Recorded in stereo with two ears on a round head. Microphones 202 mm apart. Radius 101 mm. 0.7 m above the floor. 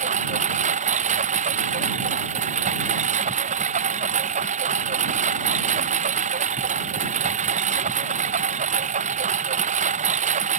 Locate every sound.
0.0 s a lawn mower: 35° right (ahead or behind)